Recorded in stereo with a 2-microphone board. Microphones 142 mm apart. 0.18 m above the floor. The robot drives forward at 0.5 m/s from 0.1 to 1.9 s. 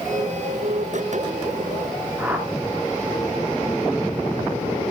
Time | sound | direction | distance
2.2 | a whoosh | 10° right (ahead or behind) | 2 m